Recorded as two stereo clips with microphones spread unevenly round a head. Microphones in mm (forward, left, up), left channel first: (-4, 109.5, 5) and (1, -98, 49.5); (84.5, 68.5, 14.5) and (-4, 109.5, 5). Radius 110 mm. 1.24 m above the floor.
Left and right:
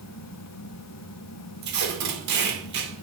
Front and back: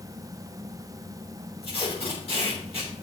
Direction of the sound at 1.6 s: 90° right.